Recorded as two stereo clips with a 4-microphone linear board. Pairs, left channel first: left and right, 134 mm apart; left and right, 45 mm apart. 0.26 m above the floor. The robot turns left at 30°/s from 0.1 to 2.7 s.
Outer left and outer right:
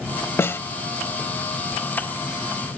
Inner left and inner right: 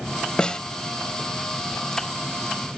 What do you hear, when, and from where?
0.4 s a snare drum: 20° left (ahead or behind), 0.7 m; by 0.6 s 15° left (ahead or behind), 0.7 m